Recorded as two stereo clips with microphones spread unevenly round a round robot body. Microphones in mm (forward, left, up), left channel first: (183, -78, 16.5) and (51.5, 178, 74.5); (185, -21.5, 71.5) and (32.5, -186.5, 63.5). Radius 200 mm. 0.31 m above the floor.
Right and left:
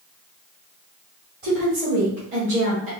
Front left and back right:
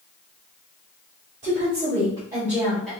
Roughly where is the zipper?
No zipper in this recording.